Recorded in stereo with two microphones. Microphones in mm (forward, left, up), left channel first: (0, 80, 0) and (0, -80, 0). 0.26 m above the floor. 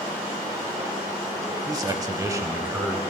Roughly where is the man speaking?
Right.